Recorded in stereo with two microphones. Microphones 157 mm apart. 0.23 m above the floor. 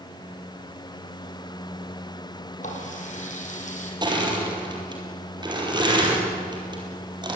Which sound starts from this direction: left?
A running tap, at 2.6 s.